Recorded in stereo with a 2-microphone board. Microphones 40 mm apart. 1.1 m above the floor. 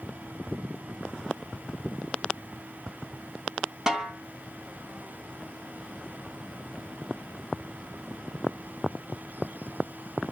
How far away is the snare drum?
About 2.5 m.